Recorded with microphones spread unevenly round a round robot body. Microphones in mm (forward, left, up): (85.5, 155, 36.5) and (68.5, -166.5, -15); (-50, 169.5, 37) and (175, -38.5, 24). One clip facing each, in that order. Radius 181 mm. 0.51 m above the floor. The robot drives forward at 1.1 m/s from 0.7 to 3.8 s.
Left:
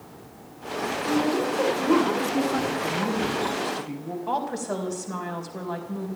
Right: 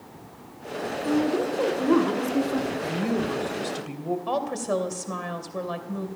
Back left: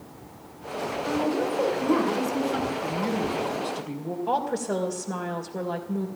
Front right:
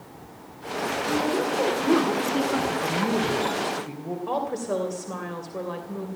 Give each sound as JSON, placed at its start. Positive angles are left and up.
{"t": 1.0, "sound": "a woman speaking", "azimuth_deg": -5, "distance_m": 5.5}
{"t": 2.7, "sound": "a woman speaking", "azimuth_deg": -70, "distance_m": 2.5}
{"t": 4.3, "sound": "a woman speaking", "azimuth_deg": -125, "distance_m": 2.5}